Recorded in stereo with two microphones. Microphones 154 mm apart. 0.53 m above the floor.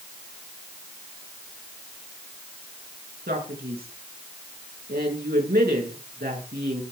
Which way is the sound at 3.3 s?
85° right.